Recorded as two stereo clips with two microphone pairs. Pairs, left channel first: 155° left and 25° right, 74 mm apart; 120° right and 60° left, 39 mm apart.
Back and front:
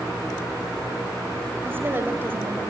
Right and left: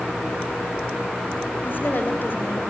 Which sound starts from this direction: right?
A woman speaking, at 1.6 s.